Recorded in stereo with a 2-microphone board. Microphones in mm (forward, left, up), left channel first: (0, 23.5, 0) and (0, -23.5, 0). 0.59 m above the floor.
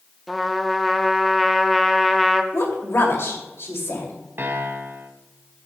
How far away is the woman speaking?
About 2.5 m.